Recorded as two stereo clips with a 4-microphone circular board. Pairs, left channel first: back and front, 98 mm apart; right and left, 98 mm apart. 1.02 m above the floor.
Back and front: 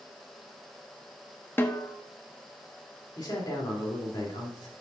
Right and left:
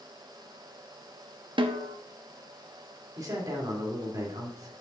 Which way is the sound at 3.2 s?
135° left.